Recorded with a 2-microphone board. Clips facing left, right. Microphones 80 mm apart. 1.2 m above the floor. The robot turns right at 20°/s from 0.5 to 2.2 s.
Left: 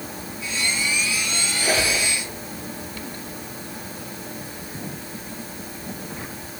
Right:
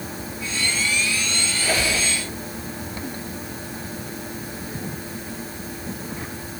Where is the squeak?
25° left (ahead or behind), 9.5 m; by 2.0 s 35° left (ahead or behind), 9.5 m.